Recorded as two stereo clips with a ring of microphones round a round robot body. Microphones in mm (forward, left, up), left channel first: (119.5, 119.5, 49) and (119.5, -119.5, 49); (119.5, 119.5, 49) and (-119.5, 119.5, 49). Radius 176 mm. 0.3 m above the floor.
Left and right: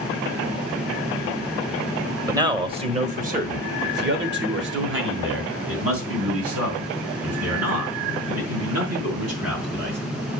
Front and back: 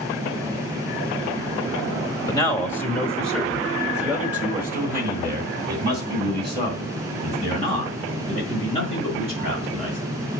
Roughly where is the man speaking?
Ahead right.